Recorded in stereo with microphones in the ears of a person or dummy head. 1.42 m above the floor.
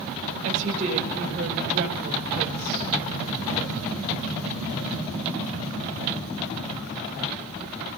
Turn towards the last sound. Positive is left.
turn(degrees=-45)  # may be behind; listen again after turning